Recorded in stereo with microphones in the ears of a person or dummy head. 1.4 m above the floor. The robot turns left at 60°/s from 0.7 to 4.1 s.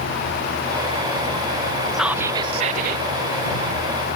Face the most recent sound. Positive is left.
turn(degrees=-130)